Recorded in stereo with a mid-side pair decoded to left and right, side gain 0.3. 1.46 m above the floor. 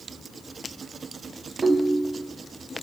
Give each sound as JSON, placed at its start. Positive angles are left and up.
{"t": 1.6, "sound": "a ringtone", "azimuth_deg": -30, "distance_m": 1.0}